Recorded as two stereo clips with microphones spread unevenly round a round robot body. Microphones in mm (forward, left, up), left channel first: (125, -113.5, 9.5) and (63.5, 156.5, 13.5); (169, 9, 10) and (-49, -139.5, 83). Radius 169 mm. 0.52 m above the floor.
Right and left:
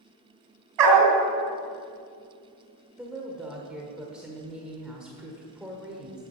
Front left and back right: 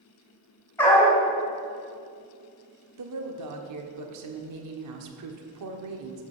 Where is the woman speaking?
170° right, 1.5 m.